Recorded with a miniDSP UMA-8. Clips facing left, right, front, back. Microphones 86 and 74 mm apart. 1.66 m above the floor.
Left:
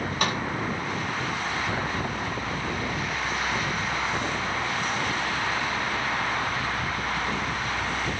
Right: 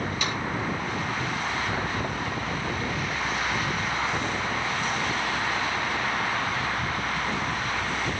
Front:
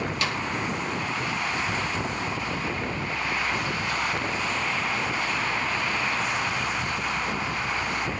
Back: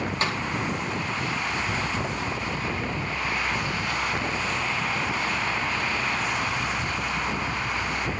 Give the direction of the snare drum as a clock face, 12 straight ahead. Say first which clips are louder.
Left 7 dB, back 2 dB; 8 o'clock.